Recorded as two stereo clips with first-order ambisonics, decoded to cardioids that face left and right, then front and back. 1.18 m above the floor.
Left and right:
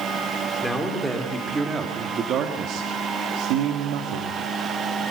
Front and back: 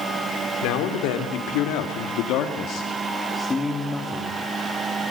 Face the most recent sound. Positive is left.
turn(degrees=-95)